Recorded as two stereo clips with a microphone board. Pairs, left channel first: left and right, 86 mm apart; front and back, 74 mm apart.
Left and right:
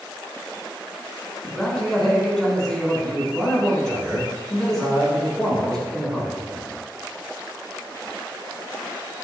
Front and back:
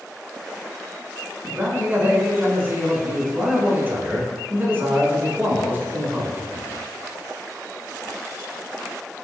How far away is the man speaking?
About 1.1 m.